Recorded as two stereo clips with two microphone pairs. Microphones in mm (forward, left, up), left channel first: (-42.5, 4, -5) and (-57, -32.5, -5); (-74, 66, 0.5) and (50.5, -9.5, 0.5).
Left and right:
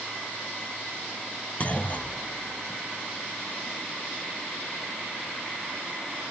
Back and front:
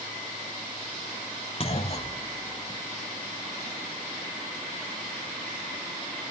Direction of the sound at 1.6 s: 115° left.